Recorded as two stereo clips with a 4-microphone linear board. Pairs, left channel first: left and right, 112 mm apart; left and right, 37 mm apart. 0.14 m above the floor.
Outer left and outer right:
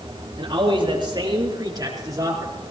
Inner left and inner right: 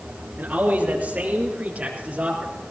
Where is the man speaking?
50° right (ahead or behind), 3 m; by 2.5 s 30° right (ahead or behind), 4.5 m.